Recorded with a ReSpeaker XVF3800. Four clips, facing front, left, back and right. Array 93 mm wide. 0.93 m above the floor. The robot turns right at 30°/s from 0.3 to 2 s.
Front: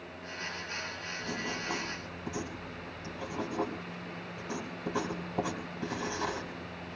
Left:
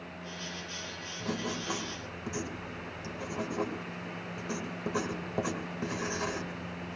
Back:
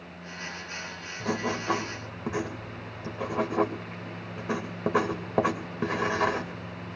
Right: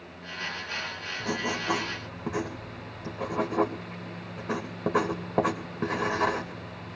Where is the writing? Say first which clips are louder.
Right 5 dB, back 8 dB; 170° right, 2.5 m; by 7.0 s 145° right, 2.5 m.